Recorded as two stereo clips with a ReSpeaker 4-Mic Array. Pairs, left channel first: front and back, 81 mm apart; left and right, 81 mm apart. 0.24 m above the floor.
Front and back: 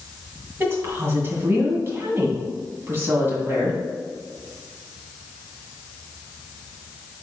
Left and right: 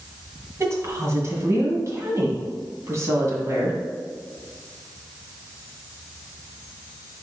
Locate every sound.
0.6 s a woman speaking: 130° right, 1.9 m